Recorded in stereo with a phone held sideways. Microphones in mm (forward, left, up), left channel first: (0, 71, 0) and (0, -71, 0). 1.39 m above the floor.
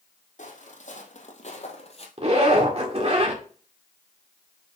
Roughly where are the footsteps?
Left.